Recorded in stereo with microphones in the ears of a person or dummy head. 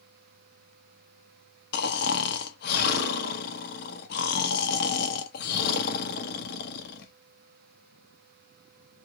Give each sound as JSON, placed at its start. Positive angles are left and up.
{"t": 1.7, "sound": "snoring", "side_deg": 55, "distance_m": 0.9}